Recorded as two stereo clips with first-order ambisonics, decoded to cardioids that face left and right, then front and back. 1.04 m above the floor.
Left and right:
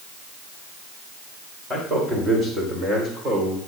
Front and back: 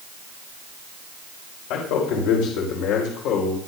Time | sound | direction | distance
1.7 | a man speaking | 15° right | 5 m